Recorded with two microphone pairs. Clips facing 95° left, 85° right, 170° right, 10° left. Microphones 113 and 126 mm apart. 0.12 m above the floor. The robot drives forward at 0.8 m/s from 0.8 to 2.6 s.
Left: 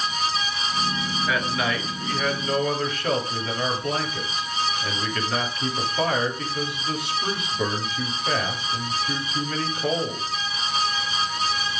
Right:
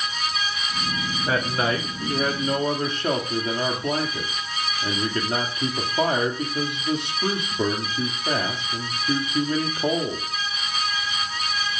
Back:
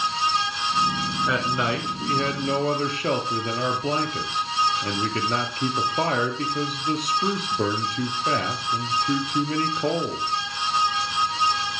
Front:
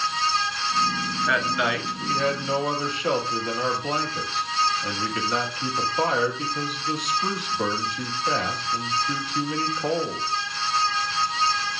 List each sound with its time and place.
1.3 s a man speaking: 115° right, 1.6 m; by 10.3 s 145° right, 2 m